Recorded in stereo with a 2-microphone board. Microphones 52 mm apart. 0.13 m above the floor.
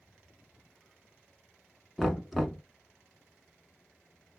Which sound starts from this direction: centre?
Knocking, at 2.0 s.